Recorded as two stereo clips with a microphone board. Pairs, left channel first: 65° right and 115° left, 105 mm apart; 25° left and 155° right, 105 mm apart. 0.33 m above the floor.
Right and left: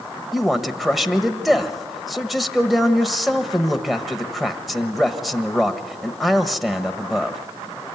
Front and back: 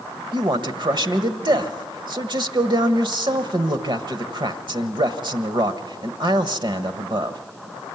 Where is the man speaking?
160° right, 1.2 m.